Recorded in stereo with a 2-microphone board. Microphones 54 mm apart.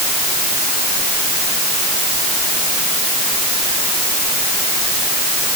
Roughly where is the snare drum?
I don't hear a snare drum.